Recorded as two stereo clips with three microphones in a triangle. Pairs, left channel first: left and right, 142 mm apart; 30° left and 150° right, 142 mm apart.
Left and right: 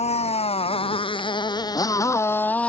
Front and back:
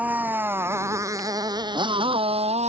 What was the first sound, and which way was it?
A motorcycle, 130° left.